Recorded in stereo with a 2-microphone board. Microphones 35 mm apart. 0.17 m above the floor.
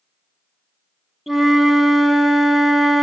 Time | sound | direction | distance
1.3 | a flute | 5° right (ahead or behind) | 0.6 m